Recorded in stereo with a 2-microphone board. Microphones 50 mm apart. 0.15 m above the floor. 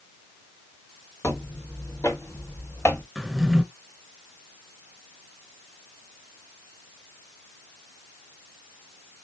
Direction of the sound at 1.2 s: 85° left.